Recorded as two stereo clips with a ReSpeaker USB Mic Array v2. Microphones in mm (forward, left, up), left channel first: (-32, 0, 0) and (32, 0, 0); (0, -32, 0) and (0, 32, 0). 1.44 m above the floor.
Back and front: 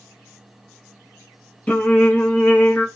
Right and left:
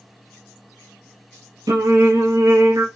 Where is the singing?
110° left, 0.6 m.